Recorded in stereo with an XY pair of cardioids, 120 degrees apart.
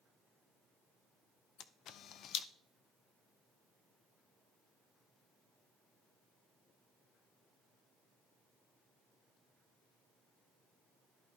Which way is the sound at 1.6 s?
65° left.